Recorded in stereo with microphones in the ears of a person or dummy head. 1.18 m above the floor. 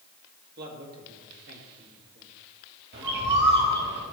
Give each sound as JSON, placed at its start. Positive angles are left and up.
{"t": 0.6, "sound": "a man speaking", "side_deg": -50, "distance_m": 2.5}
{"t": 2.9, "sound": "a bird", "side_deg": -60, "distance_m": 2.5}